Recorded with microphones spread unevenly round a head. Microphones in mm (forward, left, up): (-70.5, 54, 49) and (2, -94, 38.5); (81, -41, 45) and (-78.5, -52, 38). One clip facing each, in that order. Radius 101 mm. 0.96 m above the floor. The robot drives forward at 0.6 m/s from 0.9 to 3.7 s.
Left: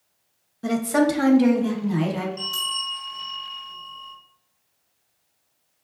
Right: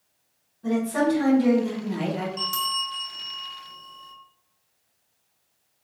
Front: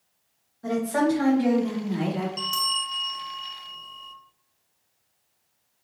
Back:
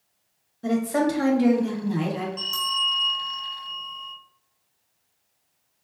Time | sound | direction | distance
0.6 | a woman speaking | 115° left | 0.8 m
2.4 | a bell | 45° right | 1.4 m